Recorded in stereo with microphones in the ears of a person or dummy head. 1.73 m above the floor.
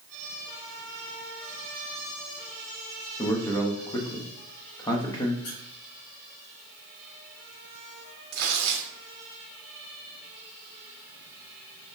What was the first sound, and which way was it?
A man speaking, 20° left (ahead or behind).